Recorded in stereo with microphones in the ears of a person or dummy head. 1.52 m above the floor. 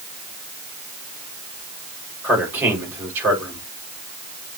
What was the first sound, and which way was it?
A man speaking, 20° right (ahead or behind).